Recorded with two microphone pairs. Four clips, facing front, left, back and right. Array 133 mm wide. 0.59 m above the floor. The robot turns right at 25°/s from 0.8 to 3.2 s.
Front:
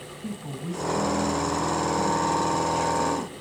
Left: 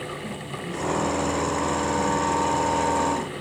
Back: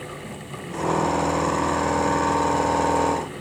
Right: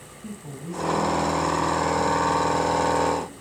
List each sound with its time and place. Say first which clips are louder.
0.2 s a woman speaking: left 4 dB, front 1 dB; straight ahead, 3.5 m; by 3.3 s 60° left, 3.5 m